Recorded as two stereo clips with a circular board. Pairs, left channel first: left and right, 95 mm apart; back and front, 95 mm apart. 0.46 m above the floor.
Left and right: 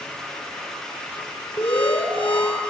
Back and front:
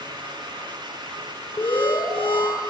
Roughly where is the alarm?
Behind.